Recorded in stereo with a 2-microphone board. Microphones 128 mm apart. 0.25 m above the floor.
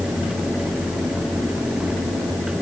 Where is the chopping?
I don't hear chopping.